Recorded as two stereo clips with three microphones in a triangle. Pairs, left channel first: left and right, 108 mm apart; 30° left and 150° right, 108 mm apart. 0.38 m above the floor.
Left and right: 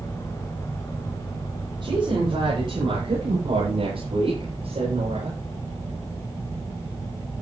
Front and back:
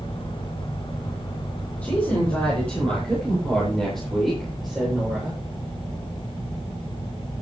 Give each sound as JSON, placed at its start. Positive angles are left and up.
{"t": 1.8, "sound": "a woman speaking", "azimuth_deg": -45, "distance_m": 9.0}